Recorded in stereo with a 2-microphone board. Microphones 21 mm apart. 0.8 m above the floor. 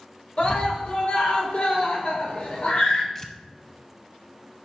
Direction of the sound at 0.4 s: 55° left (ahead or behind).